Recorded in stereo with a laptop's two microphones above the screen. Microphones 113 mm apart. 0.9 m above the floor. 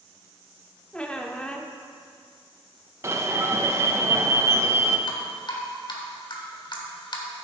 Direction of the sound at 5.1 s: 50° left (ahead or behind).